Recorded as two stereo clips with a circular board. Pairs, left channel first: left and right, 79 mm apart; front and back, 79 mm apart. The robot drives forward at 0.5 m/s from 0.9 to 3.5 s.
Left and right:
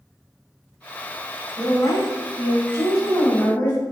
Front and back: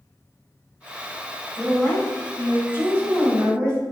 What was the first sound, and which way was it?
A woman speaking, 95° left.